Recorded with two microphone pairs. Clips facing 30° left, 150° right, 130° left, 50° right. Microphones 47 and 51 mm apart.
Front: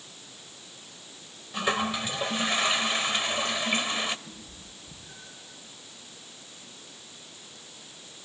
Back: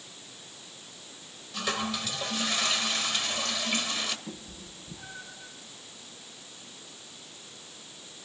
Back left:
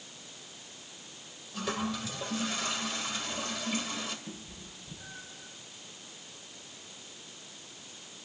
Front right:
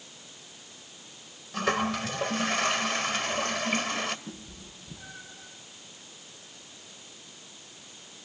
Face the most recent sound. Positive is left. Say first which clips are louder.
# back 3 dB, front right 1 dB
turn(degrees=-100)